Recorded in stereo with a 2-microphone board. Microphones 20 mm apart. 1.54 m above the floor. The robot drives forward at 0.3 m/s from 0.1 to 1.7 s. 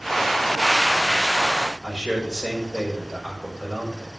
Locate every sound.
1.8 s a man speaking: 45° right (ahead or behind), 5.5 m